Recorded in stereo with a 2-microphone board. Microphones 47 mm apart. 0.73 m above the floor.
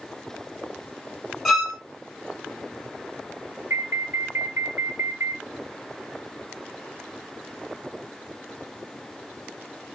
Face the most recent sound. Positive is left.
turn(degrees=-60)  # may be behind; listen again after turning